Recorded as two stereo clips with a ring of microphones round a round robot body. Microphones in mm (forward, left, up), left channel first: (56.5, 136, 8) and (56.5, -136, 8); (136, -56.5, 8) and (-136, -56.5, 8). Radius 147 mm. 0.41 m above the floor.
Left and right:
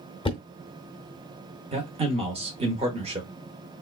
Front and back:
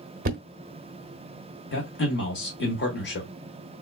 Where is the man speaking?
30° right, 1.0 m.